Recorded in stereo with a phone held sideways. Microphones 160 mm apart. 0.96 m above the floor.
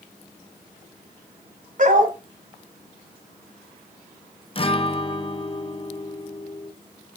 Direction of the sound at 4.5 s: 35° left (ahead or behind).